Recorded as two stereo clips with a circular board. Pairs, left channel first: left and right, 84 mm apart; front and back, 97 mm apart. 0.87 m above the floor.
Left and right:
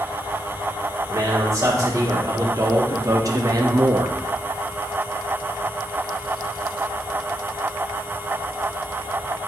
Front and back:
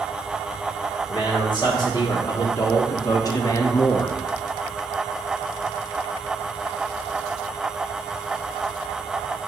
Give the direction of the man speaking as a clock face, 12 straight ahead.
1 o'clock.